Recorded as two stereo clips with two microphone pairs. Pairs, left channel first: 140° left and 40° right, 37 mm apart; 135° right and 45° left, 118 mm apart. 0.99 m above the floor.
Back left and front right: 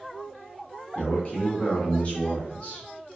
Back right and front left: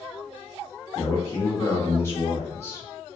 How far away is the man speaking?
About 0.9 m.